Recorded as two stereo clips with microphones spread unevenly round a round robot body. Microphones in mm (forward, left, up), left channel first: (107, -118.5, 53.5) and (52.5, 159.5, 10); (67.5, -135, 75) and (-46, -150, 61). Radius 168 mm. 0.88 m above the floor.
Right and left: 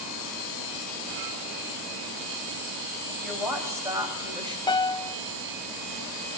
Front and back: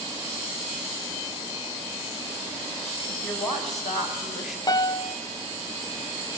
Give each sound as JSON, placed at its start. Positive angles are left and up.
{"t": 3.0, "sound": "a woman speaking", "azimuth_deg": 15, "distance_m": 6.5}
{"t": 4.7, "sound": "a piano", "azimuth_deg": 0, "distance_m": 0.6}